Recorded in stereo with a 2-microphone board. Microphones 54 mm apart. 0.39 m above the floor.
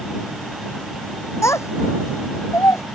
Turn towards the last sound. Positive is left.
turn(degrees=65)  # may be behind; listen again after turning